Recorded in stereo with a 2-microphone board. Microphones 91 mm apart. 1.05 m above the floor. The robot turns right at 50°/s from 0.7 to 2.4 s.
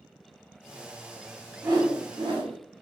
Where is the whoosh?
150° right, 1.6 m; by 2.6 s 110° right, 1.6 m.